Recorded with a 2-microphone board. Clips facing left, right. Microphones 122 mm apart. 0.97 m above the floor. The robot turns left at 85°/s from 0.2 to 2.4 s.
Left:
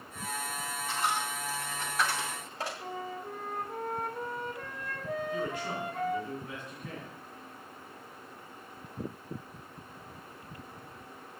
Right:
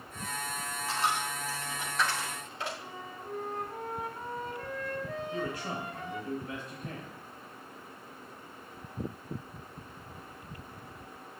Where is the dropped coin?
80° right, 2.5 m; by 2.7 s 40° left (ahead or behind), 2.5 m.